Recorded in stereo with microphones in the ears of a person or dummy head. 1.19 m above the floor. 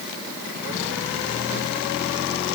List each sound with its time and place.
Only background noise.